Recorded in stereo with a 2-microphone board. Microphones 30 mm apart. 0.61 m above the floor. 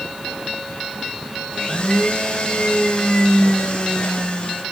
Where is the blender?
35° left (ahead or behind), 2.5 m.